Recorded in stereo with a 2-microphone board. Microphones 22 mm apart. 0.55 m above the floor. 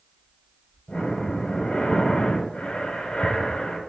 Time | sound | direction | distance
0.9 | breathing | 50° left (ahead or behind) | 1.3 m